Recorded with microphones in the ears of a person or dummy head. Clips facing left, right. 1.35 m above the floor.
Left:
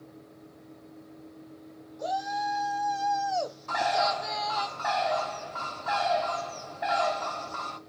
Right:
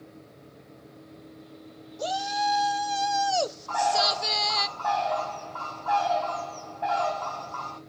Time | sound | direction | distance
2.0 | a shout | 50° right (ahead or behind) | 1.5 m
3.7 | a bird | 30° left (ahead or behind) | 0.9 m